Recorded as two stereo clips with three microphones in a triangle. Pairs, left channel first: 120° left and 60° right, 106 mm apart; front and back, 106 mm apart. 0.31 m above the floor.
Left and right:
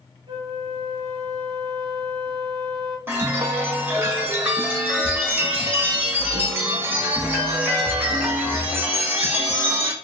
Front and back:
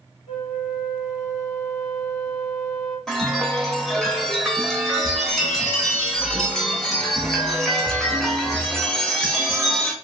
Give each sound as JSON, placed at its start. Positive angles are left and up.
{"t": 0.3, "sound": "a flute", "azimuth_deg": -20, "distance_m": 0.8}
{"t": 3.1, "sound": "a chime", "azimuth_deg": -80, "distance_m": 0.7}